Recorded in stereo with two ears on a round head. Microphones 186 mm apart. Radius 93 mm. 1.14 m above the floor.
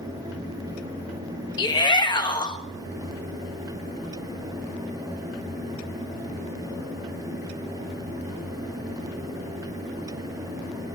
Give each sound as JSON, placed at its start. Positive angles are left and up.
{"t": 1.6, "sound": "a shout", "side_deg": 20, "distance_m": 1.5}